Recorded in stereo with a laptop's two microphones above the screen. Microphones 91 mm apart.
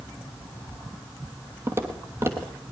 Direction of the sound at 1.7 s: 30° right (ahead or behind).